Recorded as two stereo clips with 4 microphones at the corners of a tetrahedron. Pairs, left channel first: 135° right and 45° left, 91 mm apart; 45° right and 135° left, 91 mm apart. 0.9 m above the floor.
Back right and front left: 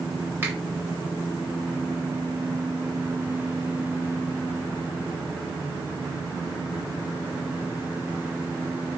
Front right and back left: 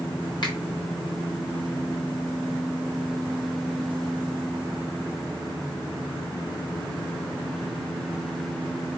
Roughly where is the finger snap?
Ahead.